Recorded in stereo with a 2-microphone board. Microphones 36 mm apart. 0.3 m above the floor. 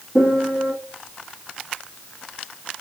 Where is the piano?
35° left (ahead or behind), 2 m.